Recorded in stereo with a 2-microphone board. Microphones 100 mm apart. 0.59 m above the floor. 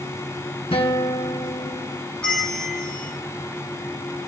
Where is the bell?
5° left (ahead or behind), 1.0 m.